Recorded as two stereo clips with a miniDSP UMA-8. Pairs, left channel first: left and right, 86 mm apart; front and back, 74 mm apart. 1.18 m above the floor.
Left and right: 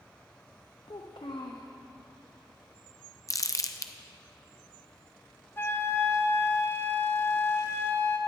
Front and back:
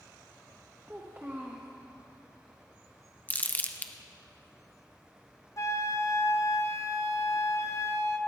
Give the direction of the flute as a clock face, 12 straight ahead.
11 o'clock.